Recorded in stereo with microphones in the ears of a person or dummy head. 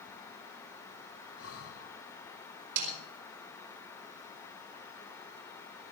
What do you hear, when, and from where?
1.4 s breathing: 65° left (ahead or behind), 1.3 m
2.8 s a snare drum: 60° right (ahead or behind), 5 m